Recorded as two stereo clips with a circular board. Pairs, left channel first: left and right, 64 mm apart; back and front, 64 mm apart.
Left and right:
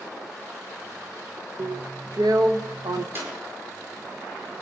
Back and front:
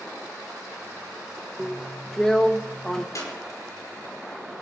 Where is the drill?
95° right, 1.2 m.